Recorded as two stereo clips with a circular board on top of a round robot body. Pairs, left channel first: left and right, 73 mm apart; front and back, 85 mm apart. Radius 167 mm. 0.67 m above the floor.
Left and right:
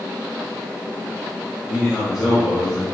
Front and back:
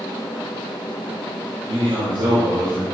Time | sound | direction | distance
1.7 | a man speaking | straight behind | 4.5 m